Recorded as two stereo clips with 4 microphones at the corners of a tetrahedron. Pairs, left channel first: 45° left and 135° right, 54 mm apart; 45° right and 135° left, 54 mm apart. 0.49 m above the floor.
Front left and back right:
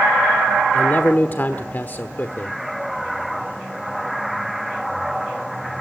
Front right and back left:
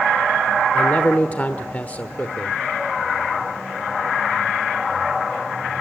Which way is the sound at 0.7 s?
5° left.